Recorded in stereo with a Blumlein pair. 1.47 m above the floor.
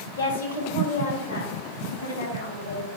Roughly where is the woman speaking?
Left.